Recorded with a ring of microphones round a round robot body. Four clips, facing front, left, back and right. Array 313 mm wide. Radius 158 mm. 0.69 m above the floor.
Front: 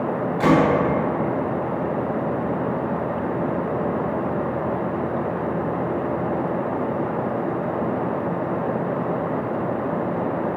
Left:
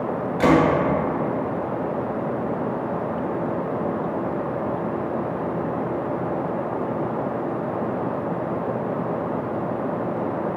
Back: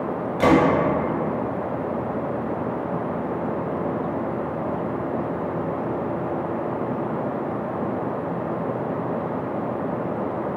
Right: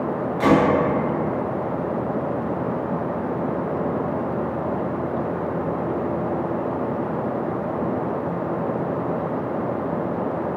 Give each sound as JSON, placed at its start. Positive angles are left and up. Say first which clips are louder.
{"t": 0.4, "sound": "a gunshot", "louder": "even, back 1 dB", "azimuth_deg": 140, "distance_m": 0.6}